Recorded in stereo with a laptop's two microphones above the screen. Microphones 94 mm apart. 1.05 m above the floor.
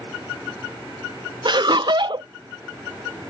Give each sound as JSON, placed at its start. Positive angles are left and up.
{"t": 1.4, "sound": "laughter", "side_deg": -50}